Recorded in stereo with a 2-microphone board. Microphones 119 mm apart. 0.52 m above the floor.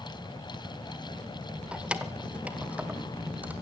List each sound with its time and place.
1.7 s keys jangling: 10° right (ahead or behind), 1.2 m